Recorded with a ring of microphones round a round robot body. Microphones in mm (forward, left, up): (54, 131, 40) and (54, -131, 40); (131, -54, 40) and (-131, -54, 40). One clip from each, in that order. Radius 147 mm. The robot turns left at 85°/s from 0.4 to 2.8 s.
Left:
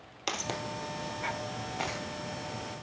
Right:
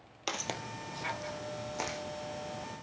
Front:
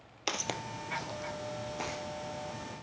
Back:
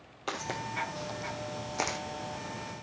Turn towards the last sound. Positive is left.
turn(degrees=125)